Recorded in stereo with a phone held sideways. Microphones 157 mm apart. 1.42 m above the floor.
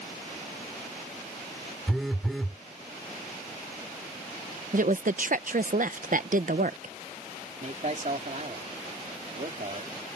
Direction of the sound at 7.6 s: 50° right (ahead or behind).